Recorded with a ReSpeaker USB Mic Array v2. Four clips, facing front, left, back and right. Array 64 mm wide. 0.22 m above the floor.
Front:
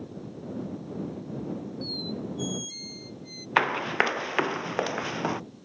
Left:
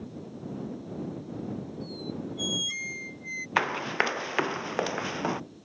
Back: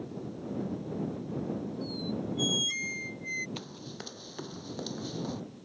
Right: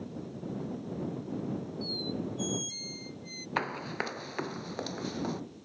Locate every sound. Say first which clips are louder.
1.8 s a squeak: even, even; 130° left
3.6 s running footsteps: left 7 dB, front 19 dB; 20° left; by 5.4 s 40° left